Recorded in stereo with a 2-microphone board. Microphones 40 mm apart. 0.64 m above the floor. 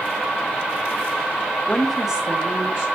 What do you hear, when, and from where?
1.7 s a woman speaking: 25° left (ahead or behind), 0.8 m; by 2.9 s 60° right (ahead or behind), 1.2 m